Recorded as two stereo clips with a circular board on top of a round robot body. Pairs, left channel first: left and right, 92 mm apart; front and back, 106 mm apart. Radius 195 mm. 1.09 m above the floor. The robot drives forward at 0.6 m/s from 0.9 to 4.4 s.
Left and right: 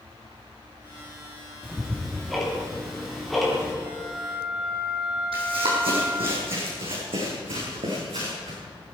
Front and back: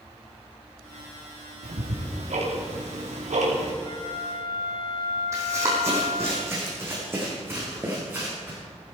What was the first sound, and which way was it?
Ticking, straight behind.